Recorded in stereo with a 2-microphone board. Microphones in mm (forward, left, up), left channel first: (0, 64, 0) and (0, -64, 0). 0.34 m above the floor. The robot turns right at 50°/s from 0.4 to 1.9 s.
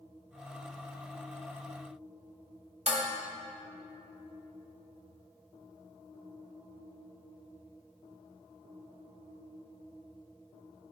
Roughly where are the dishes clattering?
Right.